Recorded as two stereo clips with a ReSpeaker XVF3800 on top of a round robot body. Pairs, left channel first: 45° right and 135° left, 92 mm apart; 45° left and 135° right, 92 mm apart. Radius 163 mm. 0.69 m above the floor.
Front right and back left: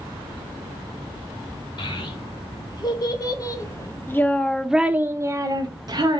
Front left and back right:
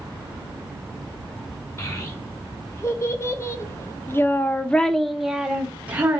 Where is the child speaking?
10° right, 1.6 m; by 6.2 s 155° left, 1.0 m.